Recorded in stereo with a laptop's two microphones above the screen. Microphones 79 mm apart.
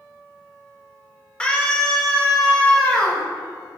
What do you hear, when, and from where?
1.4 s a scream: 15° left (ahead or behind), 3.5 m